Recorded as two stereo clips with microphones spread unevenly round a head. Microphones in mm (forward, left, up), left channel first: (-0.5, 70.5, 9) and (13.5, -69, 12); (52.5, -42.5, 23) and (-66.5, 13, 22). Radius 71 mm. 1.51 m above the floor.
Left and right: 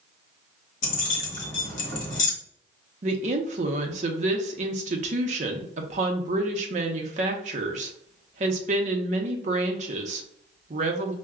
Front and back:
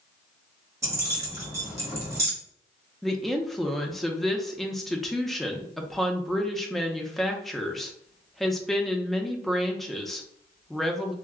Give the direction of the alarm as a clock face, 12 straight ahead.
I don't hear an alarm.